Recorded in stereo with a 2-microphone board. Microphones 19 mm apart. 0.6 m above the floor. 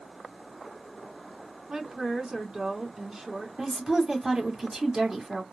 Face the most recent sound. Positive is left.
turn(degrees=-30)  # may be behind; listen again after turning